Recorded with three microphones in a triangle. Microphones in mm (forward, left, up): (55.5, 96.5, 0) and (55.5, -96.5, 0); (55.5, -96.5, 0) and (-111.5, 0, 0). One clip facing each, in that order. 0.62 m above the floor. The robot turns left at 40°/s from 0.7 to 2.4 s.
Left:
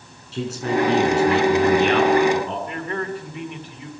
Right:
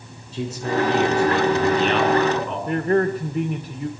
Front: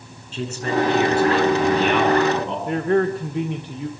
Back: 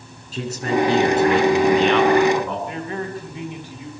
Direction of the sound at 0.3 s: 100° left.